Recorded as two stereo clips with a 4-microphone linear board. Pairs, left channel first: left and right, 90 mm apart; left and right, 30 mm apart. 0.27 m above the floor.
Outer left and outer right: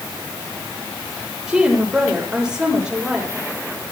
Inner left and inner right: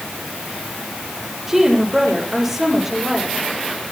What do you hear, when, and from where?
1.5 s a woman speaking: 10° right (ahead or behind), 8.5 m